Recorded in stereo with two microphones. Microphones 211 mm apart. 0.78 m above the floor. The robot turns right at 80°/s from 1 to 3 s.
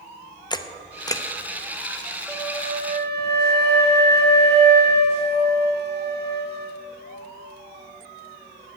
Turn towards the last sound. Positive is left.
turn(degrees=-125)